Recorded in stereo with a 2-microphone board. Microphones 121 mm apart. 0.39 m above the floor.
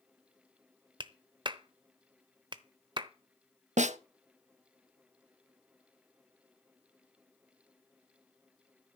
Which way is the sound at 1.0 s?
40° right (ahead or behind).